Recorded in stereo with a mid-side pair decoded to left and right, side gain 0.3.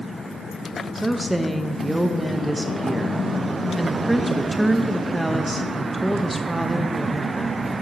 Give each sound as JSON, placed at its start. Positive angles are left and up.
{"t": 0.9, "sound": "a woman speaking", "azimuth_deg": -20, "distance_m": 0.7}